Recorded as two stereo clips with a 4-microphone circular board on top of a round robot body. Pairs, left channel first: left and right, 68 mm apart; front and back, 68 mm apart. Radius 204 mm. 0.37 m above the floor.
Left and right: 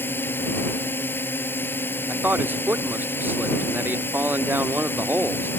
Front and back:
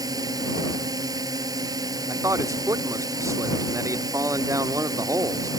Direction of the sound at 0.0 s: 150° left.